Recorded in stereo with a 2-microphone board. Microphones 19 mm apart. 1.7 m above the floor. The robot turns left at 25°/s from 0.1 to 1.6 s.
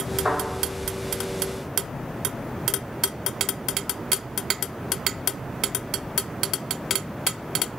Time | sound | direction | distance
0.2 | a thud | 45° right (ahead or behind) | 1.8 m